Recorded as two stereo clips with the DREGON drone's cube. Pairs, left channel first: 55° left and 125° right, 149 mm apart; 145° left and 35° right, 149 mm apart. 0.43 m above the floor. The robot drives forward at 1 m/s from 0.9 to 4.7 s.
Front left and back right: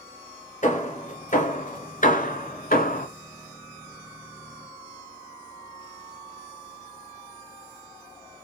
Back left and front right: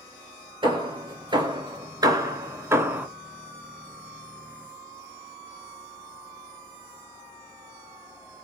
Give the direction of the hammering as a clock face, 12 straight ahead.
11 o'clock.